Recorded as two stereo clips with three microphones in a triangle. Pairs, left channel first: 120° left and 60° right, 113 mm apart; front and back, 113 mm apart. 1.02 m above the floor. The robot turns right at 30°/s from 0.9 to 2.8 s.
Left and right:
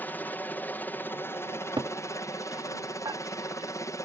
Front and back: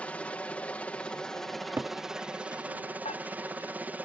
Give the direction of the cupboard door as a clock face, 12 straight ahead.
4 o'clock.